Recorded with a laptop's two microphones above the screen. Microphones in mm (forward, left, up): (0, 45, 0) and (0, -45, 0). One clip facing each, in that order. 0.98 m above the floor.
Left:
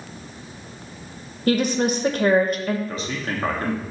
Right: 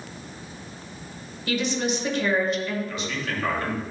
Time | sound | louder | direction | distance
1.5 | a woman speaking | left 6 dB | 45° left (ahead or behind) | 0.6 m
2.9 | a man speaking | left 2 dB | 35° left (ahead or behind) | 0.7 m